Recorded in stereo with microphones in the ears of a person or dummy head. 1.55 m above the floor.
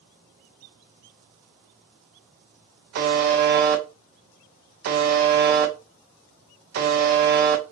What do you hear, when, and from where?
3.0 s a buzzer: 50° right (ahead or behind), 0.5 m